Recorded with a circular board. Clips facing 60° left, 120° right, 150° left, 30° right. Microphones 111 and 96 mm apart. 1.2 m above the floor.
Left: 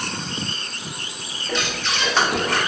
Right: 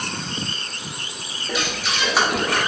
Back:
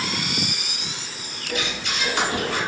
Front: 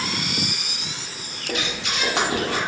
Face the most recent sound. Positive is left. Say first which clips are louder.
# even, front 1 dB
turn(degrees=-40)